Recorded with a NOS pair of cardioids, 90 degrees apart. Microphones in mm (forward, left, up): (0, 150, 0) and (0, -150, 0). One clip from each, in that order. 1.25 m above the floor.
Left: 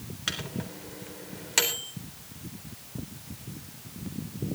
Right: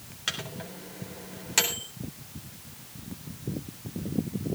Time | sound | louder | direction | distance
0.3 | a microwave | even | 5° left | 3.5 m